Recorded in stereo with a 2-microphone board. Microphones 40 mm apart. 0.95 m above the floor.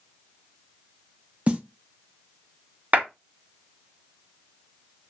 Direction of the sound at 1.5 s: 35° right (ahead or behind).